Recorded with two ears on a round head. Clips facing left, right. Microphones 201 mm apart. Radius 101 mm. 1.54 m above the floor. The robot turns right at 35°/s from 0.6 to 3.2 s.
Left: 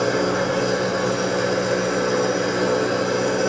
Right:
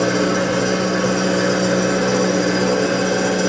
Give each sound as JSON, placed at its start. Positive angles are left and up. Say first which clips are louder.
{"t": 0.0, "sound": "an engine running", "louder": "right 3 dB", "azimuth_deg": -135, "distance_m": 1.7}